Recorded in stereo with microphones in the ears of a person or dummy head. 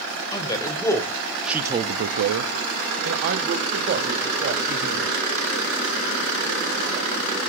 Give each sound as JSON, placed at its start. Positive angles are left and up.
{"t": 0.3, "sound": "a man speaking", "side_deg": 25, "distance_m": 1.8}